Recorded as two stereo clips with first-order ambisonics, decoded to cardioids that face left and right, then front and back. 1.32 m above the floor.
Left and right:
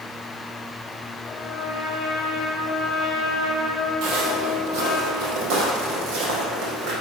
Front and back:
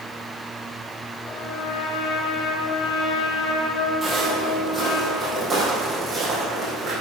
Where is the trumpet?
20° left, 2 m.